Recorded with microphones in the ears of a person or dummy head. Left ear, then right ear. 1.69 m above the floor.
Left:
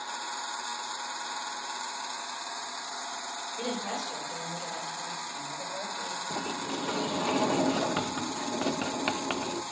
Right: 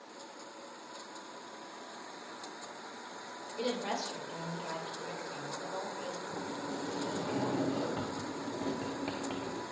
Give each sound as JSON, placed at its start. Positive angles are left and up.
{"t": 3.6, "sound": "a woman speaking", "side_deg": -45, "distance_m": 5.5}
{"t": 6.3, "sound": "a sliding door", "side_deg": 55, "distance_m": 0.6}